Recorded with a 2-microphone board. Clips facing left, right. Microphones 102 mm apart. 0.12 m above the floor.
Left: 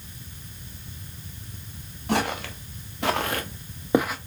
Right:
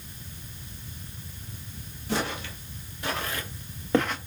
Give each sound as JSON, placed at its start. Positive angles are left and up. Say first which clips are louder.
{"t": 2.1, "sound": "footsteps", "louder": "left 4 dB", "side_deg": 75, "distance_m": 1.4}